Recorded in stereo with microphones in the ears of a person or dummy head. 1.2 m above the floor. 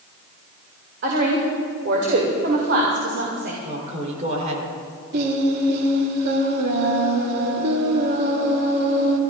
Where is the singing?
55° right (ahead or behind), 2 m.